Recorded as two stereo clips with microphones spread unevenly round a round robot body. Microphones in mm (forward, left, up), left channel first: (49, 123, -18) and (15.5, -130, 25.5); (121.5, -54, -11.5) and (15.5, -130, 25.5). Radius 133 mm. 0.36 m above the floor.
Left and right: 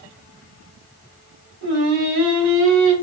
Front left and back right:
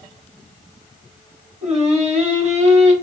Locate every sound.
1.6 s singing: 105° right, 1.0 m